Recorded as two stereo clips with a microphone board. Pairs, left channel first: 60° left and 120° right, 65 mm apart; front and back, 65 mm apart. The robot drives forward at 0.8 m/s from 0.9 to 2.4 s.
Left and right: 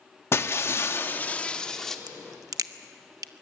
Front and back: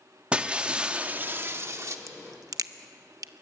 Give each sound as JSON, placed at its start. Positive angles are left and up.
{"t": 0.3, "sound": "breaking glass", "azimuth_deg": 110, "distance_m": 0.9}
{"t": 2.1, "sound": "a crack", "azimuth_deg": -135, "distance_m": 0.6}